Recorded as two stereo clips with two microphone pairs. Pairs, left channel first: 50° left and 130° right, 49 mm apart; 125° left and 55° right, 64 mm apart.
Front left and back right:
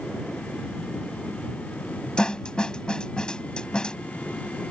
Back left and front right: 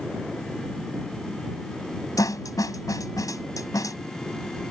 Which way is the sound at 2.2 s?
120° left.